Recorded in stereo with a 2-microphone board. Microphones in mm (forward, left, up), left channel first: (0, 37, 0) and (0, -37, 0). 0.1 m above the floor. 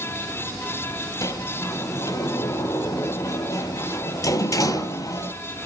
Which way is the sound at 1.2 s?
50° left (ahead or behind).